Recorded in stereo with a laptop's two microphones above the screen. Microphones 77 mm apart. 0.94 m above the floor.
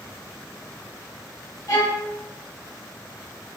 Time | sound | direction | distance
1.7 | a violin | 50° left (ahead or behind) | 1.1 m